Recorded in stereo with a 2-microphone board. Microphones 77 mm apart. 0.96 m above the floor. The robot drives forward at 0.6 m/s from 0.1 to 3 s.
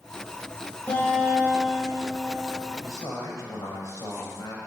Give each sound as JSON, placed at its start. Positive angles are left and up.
{"t": 0.9, "sound": "a guitar", "side_deg": 20, "distance_m": 7.0}
{"t": 2.8, "sound": "a man speaking", "side_deg": 45, "distance_m": 4.5}